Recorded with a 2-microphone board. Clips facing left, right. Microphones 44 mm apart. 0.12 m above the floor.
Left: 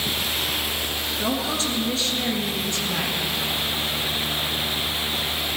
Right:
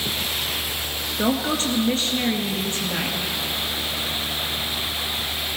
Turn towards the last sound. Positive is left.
turn(degrees=-30)  # may be behind; listen again after turning